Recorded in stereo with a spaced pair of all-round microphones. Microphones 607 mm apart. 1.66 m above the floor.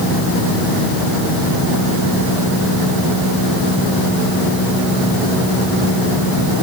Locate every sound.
Only background noise.